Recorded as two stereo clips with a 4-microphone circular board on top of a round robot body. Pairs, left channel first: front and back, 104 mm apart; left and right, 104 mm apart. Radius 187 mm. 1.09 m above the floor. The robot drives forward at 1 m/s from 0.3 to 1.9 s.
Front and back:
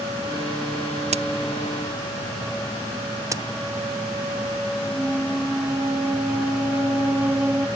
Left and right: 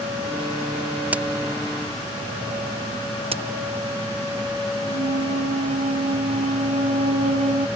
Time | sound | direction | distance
1.1 | a crack | 165° right | ?
3.3 | a crack | 120° right | ?
4.8 | a flute | 100° right | ?